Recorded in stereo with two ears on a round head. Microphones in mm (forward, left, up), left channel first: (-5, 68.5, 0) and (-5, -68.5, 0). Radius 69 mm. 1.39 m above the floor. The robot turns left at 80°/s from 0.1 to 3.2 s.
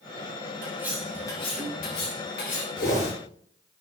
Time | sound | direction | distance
0.6 | cutlery clinking | 150° right | 6.5 m
2.8 | a whoosh | 65° left | 9 m